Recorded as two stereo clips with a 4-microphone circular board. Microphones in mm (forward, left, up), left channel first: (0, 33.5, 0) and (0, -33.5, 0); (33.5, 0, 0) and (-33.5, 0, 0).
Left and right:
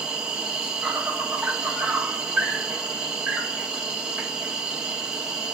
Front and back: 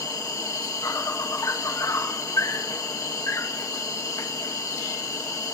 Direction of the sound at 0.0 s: 15° right.